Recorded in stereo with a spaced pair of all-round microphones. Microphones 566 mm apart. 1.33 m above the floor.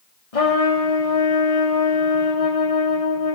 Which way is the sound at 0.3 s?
75° left (ahead or behind).